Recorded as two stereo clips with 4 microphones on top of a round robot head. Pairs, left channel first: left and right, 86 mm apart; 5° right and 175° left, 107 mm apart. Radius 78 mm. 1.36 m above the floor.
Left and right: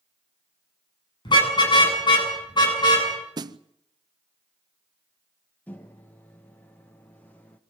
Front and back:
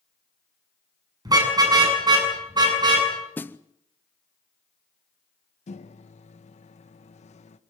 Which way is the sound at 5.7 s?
10° left.